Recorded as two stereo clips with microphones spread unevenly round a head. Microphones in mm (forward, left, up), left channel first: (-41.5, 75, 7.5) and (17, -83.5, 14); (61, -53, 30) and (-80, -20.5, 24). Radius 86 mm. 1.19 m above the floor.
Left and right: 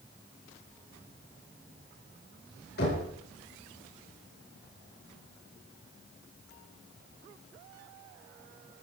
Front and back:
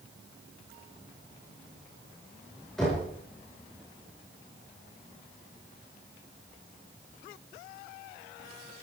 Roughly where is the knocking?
Left.